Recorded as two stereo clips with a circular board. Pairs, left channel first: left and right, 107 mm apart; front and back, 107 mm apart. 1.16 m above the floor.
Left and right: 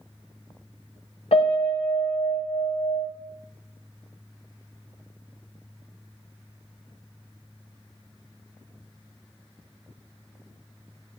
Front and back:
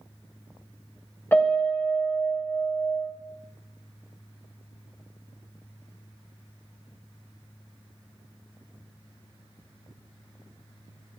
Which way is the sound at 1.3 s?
70° left.